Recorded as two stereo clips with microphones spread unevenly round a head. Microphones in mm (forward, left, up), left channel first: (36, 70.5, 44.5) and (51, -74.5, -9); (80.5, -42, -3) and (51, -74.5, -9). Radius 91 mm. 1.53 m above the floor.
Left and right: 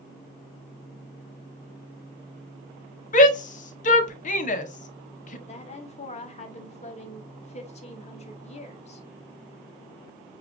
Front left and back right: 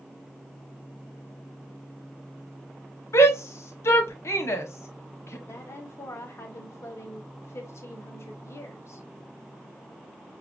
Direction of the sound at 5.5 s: 60° left.